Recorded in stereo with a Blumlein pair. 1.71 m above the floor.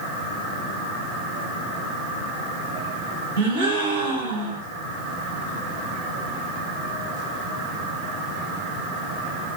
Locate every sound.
3.4 s a gasp: 65° right, 1.9 m